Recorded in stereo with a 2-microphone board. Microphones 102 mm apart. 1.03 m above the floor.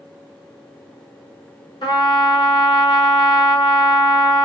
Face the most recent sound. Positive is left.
turn(degrees=55)  # may be behind; listen again after turning